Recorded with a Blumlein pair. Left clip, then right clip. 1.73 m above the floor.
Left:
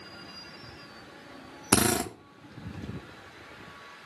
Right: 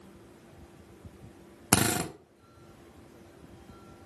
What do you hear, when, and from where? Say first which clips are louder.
1.7 s a drill: left 2 dB; 5° left, 0.9 m